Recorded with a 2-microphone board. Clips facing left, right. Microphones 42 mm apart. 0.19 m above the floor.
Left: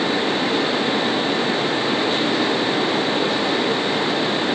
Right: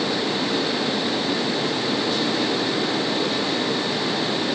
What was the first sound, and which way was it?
Only background noise.